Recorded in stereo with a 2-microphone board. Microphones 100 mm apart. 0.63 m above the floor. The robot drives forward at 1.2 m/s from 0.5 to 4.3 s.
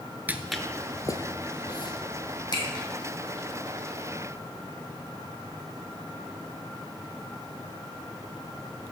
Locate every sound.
0.3 s footsteps: 20° right (ahead or behind), 0.6 m; by 2.8 s 50° left (ahead or behind), 2 m